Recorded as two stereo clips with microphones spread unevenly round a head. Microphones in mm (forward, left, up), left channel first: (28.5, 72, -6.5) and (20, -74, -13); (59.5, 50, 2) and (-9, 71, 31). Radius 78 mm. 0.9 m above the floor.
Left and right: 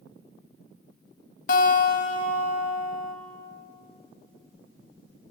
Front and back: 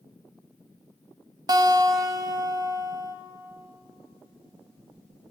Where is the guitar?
125° left, 0.8 m.